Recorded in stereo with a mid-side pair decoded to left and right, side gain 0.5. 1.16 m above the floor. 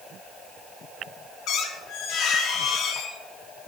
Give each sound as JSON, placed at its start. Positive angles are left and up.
{"t": 1.5, "sound": "a squeak", "azimuth_deg": 70, "distance_m": 0.5}